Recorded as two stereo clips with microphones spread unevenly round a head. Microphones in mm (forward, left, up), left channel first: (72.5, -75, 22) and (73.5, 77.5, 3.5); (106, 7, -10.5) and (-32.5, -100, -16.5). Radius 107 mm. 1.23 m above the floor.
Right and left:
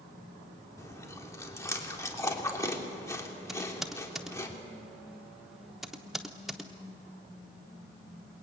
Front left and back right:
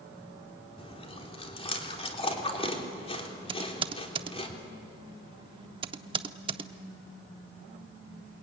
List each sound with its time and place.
0.8 s chewing: 20° right, 3.5 m
3.5 s typing on a keyboard: 170° right, 0.8 m